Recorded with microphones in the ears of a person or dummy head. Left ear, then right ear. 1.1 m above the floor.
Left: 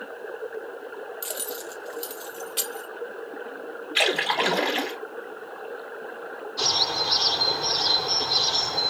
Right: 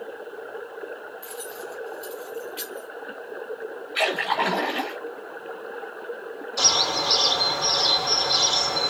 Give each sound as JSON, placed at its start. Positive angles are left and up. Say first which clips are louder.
{"t": 1.2, "sound": "keys jangling", "louder": "left 2 dB", "side_deg": 45, "distance_m": 0.8}
{"t": 4.0, "sound": "a splash", "louder": "left 1 dB", "side_deg": 25, "distance_m": 2.5}
{"t": 6.6, "sound": "a bird", "louder": "right 3 dB", "side_deg": -50, "distance_m": 2.5}